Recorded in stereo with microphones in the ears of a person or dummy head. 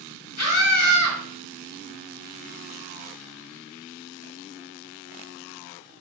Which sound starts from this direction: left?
A scream, at 0.4 s.